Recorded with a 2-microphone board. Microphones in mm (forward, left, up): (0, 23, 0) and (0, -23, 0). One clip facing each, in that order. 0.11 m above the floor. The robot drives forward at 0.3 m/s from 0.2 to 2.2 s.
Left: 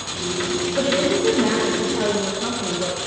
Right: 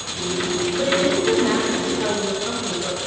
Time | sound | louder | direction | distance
0.8 | a woman speaking | even | 70° left (ahead or behind) | 4.5 m